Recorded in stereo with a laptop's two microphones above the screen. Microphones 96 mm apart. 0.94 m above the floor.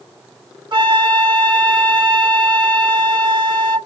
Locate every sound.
0.7 s a flute: 55° right (ahead or behind), 1.0 m